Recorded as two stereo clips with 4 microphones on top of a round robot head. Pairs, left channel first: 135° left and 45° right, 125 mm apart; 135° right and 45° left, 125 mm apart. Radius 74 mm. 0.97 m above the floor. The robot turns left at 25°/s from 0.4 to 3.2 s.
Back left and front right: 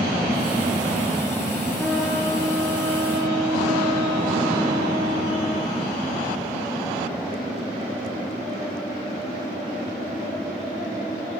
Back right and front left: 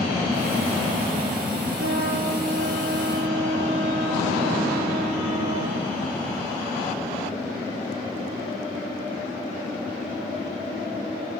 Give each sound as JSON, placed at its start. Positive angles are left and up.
{"t": 1.8, "sound": "a trumpet", "azimuth_deg": 55, "distance_m": 3.5}